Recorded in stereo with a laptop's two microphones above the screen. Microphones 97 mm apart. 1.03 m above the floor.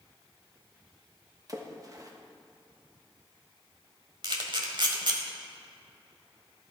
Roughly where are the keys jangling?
No keys jangling in this recording.